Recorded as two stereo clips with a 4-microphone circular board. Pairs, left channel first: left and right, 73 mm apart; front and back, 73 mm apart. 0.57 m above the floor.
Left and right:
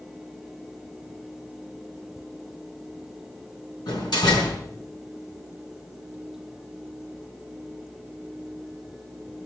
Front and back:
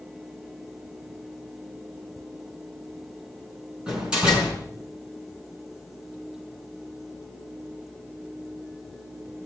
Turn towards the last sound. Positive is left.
turn(degrees=100)